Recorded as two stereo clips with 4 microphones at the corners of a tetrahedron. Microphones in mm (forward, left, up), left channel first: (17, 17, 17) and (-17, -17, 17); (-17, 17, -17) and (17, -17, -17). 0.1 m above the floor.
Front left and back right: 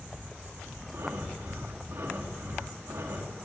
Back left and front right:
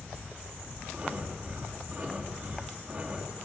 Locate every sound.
0.9 s breathing: 110° right, 3.5 m